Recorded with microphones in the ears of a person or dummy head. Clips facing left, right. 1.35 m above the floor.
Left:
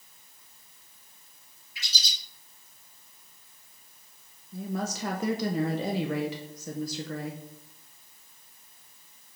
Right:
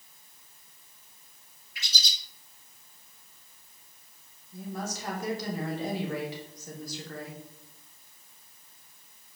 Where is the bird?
50° right (ahead or behind), 1.6 m.